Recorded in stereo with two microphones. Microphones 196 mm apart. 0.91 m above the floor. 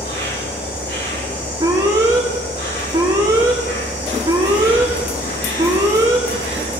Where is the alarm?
20° right (ahead or behind), 2.5 m.